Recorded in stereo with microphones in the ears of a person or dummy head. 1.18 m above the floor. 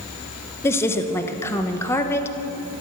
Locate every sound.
0.6 s a woman speaking: 20° left (ahead or behind), 1.2 m